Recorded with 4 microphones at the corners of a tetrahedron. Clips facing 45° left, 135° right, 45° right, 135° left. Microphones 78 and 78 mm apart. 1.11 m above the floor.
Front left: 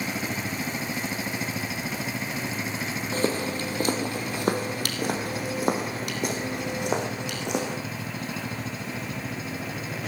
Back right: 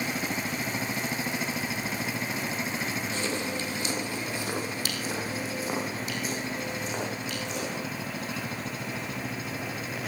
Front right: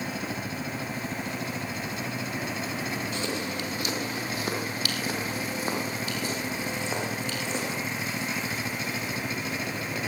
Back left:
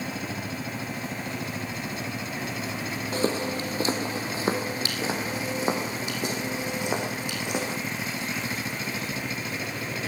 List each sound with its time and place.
3.1 s footsteps: 85° left, 2.5 m; by 7.8 s 60° left, 4.5 m